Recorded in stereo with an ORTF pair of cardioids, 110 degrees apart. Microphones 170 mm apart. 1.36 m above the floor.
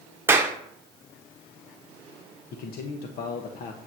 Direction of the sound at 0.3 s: 15° right.